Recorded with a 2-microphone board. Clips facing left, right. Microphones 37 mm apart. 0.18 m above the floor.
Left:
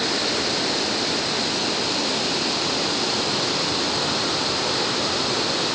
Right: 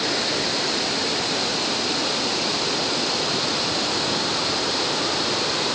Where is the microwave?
I don't hear a microwave.